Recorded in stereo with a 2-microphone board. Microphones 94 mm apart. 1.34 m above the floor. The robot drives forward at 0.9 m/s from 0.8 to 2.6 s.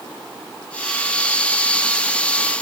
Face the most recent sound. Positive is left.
No sound to turn to.